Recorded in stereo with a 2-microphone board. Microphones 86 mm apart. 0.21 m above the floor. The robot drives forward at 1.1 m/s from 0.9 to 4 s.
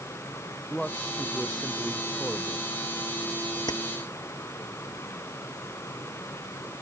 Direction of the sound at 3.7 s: 55° left (ahead or behind).